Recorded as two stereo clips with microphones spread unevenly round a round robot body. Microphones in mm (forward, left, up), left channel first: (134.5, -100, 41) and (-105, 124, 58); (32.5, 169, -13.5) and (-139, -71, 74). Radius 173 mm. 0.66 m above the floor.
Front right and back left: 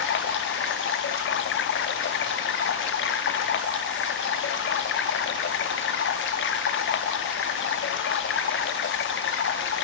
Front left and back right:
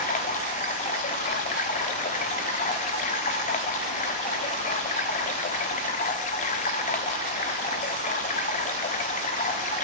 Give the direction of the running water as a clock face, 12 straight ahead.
12 o'clock.